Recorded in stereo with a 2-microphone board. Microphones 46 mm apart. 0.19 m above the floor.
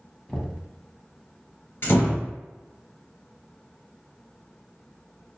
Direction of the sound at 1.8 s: 55° left (ahead or behind).